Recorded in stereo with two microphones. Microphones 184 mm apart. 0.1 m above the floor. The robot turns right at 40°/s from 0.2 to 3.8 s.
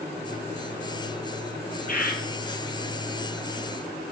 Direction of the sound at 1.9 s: 50° left (ahead or behind).